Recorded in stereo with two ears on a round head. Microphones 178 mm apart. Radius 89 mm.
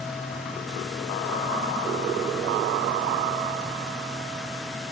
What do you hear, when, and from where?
Only background noise.